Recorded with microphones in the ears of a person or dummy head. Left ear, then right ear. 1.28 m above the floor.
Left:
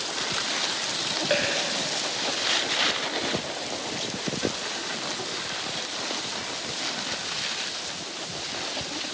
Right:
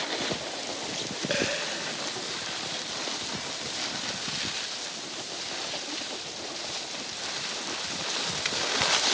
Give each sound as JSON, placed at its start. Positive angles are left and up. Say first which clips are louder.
{"t": 1.3, "sound": "a dropped coin", "louder": "left 2 dB", "side_deg": 5, "distance_m": 1.1}